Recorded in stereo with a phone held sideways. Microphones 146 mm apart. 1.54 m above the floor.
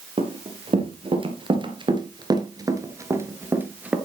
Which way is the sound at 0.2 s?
45° right (ahead or behind).